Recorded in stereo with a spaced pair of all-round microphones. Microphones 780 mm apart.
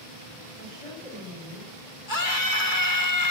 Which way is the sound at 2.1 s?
80° left.